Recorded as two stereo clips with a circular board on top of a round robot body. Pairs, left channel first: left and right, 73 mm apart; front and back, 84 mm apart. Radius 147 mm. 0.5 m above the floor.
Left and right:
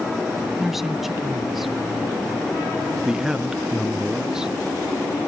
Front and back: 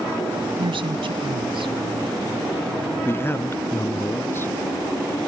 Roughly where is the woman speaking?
Behind.